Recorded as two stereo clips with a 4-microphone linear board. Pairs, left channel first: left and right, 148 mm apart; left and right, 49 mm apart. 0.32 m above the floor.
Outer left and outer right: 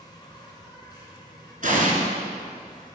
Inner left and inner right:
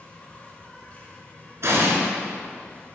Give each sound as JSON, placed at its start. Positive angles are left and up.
{"t": 0.0, "sound": "an insect", "side_deg": 30, "distance_m": 1.6}
{"t": 1.6, "sound": "an explosion", "side_deg": -65, "distance_m": 1.6}